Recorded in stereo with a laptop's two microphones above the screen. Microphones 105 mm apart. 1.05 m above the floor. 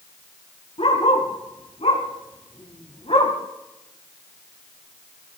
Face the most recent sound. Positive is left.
turn(degrees=65)  # may be behind; listen again after turning